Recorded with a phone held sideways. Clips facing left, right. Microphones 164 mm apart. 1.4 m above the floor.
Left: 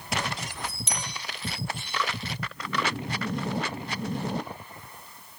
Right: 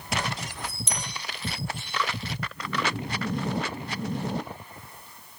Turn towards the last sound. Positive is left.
turn(degrees=70)  # may be behind; listen again after turning